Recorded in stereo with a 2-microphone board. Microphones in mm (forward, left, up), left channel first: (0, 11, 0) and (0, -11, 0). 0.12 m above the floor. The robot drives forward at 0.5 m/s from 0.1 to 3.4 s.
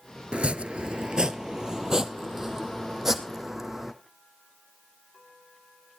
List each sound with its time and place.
0.3 s chopping: 55° right (ahead or behind), 0.5 m; by 3.9 s 15° right (ahead or behind), 1.6 m